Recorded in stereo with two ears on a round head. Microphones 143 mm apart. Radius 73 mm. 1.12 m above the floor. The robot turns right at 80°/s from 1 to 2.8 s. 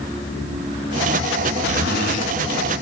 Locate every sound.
1.6 s a zipper: 80° left, 1.7 m; by 2.3 s 135° left, 1.7 m